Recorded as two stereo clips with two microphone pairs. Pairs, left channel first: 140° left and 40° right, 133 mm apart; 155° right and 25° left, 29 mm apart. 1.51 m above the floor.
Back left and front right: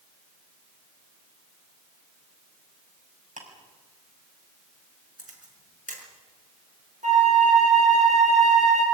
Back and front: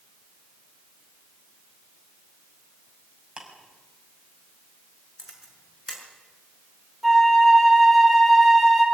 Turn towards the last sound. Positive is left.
turn(degrees=-60)